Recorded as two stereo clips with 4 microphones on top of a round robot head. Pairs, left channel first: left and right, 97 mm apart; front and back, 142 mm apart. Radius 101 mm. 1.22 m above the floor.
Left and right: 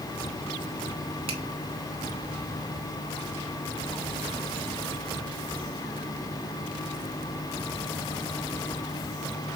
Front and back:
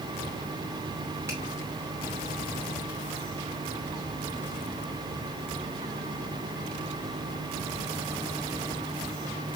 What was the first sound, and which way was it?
A finger snap, 105° right.